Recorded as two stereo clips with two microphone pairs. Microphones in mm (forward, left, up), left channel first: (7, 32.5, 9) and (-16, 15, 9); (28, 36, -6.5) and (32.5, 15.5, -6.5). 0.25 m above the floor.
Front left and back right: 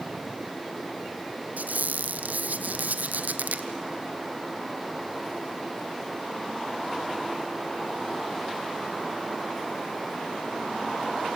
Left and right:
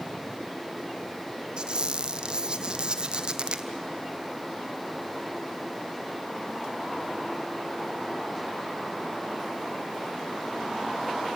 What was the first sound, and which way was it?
A squeak, 130° right.